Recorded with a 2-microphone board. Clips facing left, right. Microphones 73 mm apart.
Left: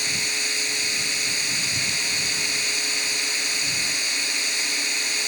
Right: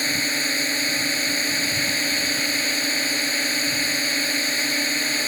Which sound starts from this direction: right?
A drone, at 0.0 s.